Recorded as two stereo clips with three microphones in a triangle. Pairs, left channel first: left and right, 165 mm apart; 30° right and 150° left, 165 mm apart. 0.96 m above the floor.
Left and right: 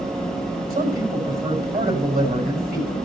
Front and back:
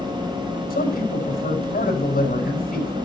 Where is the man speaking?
60° right, 5 m.